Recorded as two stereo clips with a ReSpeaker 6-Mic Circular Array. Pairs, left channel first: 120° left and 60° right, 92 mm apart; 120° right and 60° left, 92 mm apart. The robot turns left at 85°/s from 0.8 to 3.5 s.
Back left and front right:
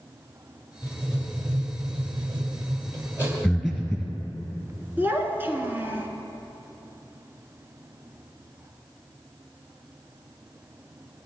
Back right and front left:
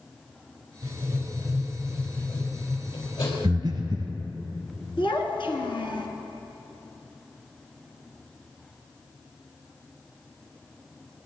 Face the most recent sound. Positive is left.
turn(degrees=-125)